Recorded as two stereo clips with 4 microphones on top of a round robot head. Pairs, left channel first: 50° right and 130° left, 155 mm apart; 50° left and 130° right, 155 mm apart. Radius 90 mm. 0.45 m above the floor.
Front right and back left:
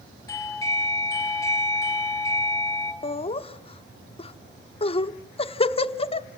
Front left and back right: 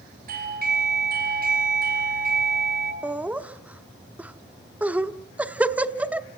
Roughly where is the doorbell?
Behind right.